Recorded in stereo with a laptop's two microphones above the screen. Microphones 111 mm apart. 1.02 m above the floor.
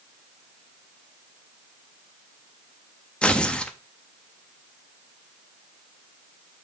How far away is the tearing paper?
About 0.5 m.